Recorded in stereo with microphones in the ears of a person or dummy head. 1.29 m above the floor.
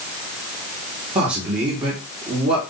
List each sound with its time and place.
1.1 s a man speaking: 30° right (ahead or behind), 3 m